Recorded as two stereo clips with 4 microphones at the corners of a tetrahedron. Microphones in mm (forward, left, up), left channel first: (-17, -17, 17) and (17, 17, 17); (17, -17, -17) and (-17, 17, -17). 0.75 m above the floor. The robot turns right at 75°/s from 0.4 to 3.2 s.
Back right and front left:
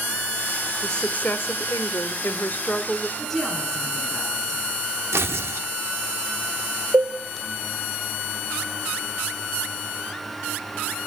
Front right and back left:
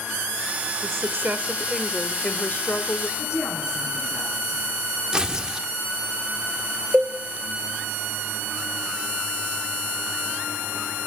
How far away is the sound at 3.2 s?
About 7.5 m.